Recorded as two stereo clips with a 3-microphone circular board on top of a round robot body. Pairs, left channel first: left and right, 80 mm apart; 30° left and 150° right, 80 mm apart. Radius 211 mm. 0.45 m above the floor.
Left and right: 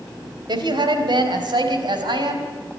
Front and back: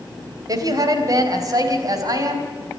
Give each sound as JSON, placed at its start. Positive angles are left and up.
{"t": 0.5, "sound": "a woman speaking", "azimuth_deg": -110, "distance_m": 3.5}